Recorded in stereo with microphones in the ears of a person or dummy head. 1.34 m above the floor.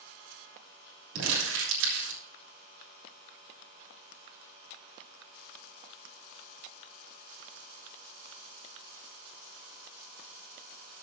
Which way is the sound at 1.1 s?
75° right (ahead or behind).